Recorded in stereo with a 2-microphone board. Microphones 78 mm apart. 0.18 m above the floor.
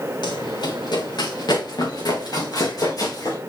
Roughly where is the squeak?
I don't hear a squeak.